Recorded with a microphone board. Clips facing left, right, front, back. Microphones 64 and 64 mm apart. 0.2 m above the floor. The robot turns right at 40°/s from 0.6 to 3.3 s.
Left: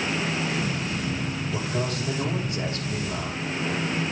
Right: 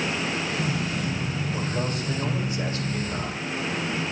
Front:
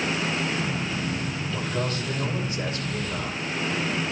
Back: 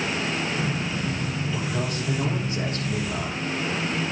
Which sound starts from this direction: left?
A man speaking, at 1.5 s.